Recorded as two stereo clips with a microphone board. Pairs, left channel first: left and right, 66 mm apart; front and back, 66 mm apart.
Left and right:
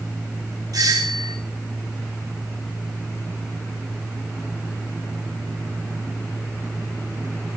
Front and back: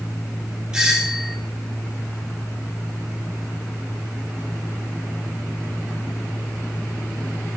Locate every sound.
0.7 s a doorbell: 105° right, 6 m